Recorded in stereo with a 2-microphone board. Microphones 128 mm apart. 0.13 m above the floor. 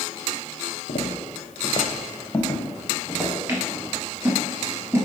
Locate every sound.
0.9 s footsteps: 75° left (ahead or behind), 0.9 m; by 3.3 s 10° right (ahead or behind), 2 m
3.5 s scissors: 20° right (ahead or behind), 1.2 m